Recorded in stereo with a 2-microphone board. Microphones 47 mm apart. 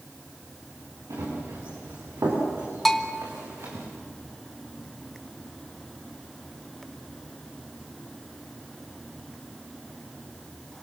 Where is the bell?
5° left (ahead or behind), 1.4 m.